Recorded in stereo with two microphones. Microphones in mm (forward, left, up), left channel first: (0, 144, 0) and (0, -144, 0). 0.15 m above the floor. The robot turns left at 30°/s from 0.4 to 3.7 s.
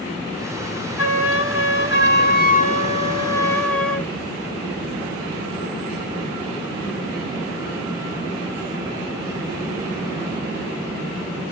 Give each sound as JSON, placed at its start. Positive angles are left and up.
{"t": 1.0, "sound": "a flute", "azimuth_deg": 85, "distance_m": 0.6}